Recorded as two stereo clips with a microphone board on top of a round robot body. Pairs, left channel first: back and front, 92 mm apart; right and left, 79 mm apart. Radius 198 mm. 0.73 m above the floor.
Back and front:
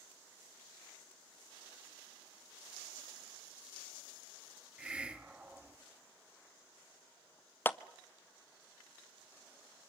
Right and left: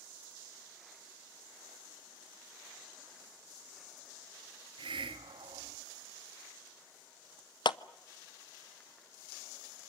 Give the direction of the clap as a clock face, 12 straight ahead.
4 o'clock.